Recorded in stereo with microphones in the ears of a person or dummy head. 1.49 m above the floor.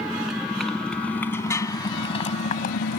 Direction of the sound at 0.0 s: 5° right (ahead or behind).